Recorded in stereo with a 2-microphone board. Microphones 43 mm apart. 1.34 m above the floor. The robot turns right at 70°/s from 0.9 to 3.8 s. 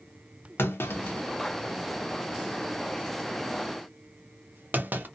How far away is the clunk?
About 0.6 m.